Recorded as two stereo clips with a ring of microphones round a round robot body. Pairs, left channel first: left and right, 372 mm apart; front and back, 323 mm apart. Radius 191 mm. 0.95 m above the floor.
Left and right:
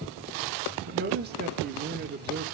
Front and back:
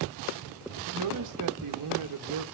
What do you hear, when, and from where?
0.9 s a man speaking: 155° right, 1.5 m